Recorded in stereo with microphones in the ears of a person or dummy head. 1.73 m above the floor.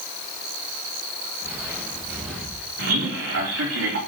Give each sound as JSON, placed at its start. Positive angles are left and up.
{"t": 1.4, "sound": "footsteps", "side_deg": -15, "distance_m": 4.0}
{"t": 2.8, "sound": "a man speaking", "side_deg": -70, "distance_m": 4.0}